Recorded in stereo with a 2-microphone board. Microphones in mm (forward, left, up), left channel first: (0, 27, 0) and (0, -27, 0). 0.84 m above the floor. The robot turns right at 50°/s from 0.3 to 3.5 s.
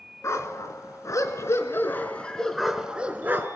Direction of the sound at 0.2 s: 60° left.